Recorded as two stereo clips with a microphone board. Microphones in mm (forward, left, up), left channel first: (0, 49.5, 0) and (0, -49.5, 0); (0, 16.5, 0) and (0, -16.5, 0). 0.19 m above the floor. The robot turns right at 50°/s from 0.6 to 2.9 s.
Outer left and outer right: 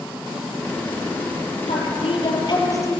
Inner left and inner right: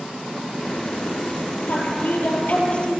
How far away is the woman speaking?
About 5 m.